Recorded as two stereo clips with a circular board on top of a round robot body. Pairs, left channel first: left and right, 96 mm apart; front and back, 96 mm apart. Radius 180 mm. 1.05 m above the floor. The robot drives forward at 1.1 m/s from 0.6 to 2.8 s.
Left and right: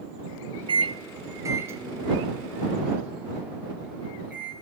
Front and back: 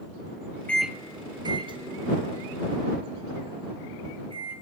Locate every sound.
0.7 s a microwave: 75° right, 0.6 m; by 4.5 s 165° right, 2.5 m